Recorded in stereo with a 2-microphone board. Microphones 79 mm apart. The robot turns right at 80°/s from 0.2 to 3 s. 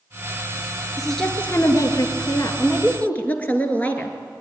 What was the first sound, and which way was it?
A woman speaking, 10° right.